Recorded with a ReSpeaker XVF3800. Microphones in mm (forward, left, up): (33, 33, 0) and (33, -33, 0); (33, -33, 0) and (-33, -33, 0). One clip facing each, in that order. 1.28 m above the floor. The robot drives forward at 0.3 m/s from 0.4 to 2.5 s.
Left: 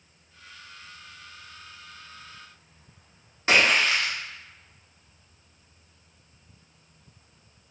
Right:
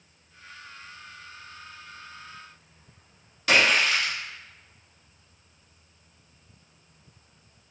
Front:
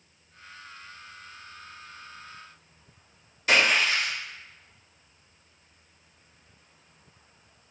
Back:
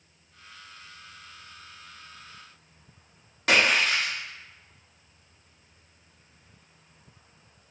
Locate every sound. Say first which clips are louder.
3.5 s a splash: even, even; 150° left, 0.8 m